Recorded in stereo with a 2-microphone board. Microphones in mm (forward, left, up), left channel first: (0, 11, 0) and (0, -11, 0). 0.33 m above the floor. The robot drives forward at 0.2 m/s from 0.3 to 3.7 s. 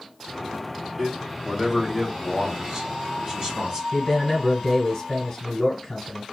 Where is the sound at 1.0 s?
30° right (ahead or behind), 1.6 m.